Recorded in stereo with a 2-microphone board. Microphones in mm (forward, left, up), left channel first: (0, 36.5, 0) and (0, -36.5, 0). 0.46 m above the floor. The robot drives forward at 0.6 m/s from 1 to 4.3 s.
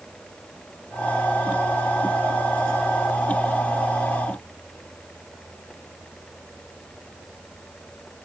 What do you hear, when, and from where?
Only background noise.